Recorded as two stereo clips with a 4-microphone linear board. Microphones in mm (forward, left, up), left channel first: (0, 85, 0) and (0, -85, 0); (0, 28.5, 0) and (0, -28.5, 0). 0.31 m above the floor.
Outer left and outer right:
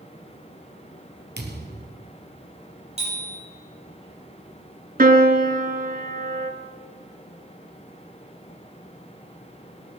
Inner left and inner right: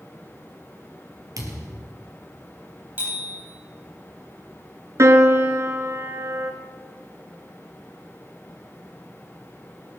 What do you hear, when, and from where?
1.4 s a thud: 85° right, 2.5 m
3.0 s a bicycle bell: 35° right (ahead or behind), 7 m
5.0 s a piano: 55° right (ahead or behind), 1.1 m